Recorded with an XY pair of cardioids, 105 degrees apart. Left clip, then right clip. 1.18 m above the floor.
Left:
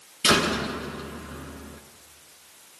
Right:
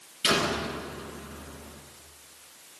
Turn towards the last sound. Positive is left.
turn(degrees=45)